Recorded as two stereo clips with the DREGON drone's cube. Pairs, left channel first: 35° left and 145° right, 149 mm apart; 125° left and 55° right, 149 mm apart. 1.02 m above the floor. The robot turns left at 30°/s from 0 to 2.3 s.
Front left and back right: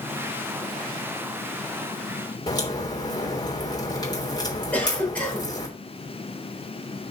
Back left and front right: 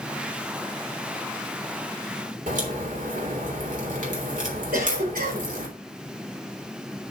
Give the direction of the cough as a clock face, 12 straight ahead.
2 o'clock.